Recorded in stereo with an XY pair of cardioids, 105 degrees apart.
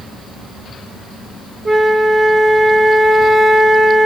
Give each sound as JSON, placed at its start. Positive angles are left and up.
{"t": 1.6, "sound": "a flute", "azimuth_deg": -25, "distance_m": 0.9}